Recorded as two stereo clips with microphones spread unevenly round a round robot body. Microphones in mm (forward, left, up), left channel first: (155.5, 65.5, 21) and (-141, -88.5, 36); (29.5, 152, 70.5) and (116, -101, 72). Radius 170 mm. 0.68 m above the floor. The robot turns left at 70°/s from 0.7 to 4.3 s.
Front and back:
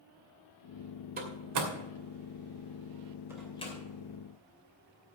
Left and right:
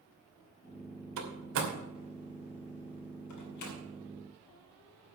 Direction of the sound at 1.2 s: 85° right.